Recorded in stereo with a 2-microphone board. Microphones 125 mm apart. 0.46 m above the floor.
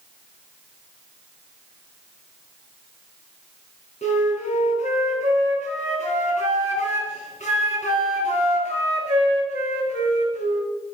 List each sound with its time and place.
4.0 s a flute: 80° left, 3.5 m